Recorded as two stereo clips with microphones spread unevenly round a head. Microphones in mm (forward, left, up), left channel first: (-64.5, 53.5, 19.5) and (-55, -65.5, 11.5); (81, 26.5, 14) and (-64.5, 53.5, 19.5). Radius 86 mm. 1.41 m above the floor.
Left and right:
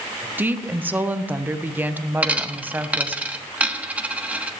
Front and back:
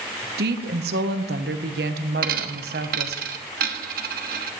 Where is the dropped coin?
165° right, 1.2 m.